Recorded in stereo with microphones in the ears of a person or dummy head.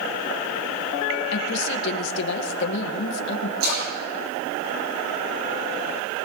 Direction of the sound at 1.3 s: 60° left (ahead or behind).